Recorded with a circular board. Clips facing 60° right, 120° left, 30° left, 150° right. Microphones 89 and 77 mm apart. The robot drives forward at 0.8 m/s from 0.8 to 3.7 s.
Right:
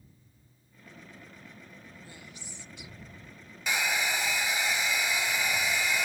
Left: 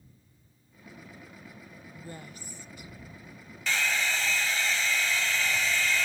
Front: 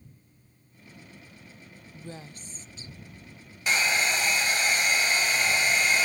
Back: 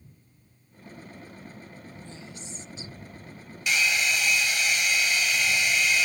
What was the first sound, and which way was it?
A woman speaking, 70° left.